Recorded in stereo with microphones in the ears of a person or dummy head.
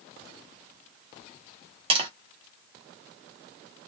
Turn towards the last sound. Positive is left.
turn(degrees=-25)  # may be behind; listen again after turning